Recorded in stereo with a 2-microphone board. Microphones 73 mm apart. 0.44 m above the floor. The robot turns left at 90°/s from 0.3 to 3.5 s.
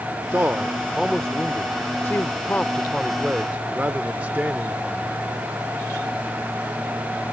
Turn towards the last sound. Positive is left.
turn(degrees=-40)